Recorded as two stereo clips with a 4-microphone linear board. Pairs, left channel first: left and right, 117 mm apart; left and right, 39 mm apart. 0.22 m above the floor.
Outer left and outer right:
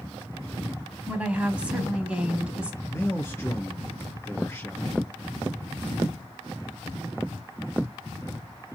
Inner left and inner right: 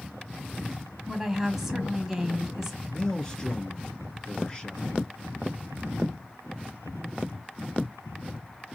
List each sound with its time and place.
1.1 s a woman speaking: 10° right (ahead or behind), 1.3 m
2.8 s a man speaking: 20° left (ahead or behind), 3 m